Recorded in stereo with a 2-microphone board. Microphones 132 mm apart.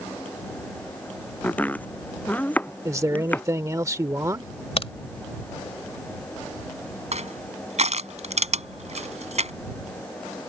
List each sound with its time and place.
1.4 s chopping: 10° left (ahead or behind)
2.9 s a man speaking: 25° right (ahead or behind)
4.8 s a crack: 50° left (ahead or behind)
7.1 s crushing: 60° right (ahead or behind)